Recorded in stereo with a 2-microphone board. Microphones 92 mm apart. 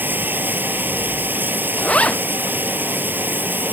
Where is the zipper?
10° left (ahead or behind).